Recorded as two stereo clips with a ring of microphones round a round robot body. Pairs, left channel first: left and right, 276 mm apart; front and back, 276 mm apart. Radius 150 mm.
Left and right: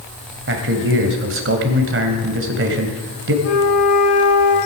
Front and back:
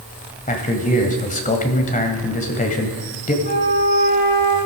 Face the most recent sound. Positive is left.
turn(degrees=60)